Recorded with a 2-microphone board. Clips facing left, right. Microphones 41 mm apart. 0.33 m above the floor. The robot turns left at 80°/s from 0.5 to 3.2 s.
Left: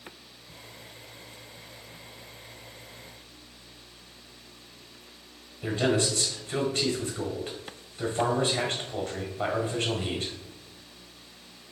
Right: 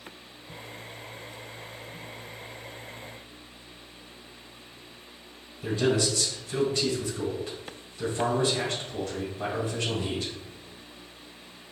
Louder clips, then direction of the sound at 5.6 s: Even; 45° left (ahead or behind).